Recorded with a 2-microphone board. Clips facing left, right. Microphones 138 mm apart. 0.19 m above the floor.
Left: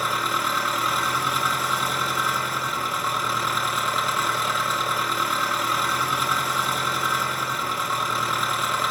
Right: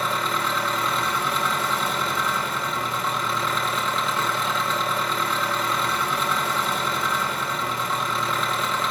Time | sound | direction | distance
0.0 | an engine running | 5° left (ahead or behind) | 2 m